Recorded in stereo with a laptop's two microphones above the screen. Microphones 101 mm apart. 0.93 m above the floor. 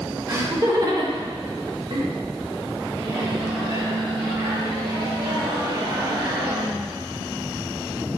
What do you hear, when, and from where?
0.3 s laughter: 35° right (ahead or behind), 3.5 m; by 2.1 s 60° right (ahead or behind), 2.5 m
3.0 s a microwave: 50° right (ahead or behind), 4 m